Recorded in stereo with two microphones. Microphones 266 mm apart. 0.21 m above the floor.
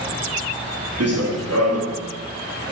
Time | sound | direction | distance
1.0 | running footsteps | 65° right (ahead or behind) | 3.5 m